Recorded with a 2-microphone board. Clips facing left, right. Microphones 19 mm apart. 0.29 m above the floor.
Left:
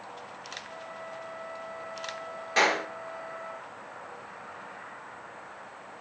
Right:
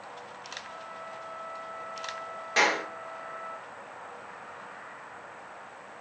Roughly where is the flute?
Centre.